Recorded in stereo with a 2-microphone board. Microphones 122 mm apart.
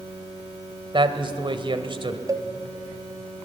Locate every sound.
0.9 s a man speaking: 40° right (ahead or behind), 1.6 m
2.3 s a cowbell: 30° right (ahead or behind), 1.0 m